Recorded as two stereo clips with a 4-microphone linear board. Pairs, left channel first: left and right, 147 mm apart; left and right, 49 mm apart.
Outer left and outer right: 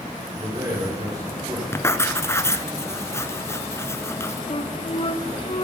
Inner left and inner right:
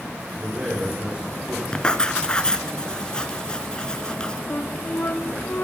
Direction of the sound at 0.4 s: 25° right (ahead or behind).